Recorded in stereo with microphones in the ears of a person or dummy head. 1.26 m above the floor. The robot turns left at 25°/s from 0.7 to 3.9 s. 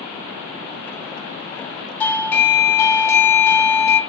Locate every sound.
2.0 s a doorbell: 15° left (ahead or behind), 0.6 m; by 4.0 s 20° left (ahead or behind), 0.6 m